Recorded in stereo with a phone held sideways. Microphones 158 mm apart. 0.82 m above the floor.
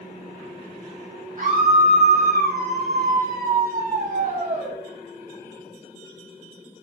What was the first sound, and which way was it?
A scream, 50° right (ahead or behind).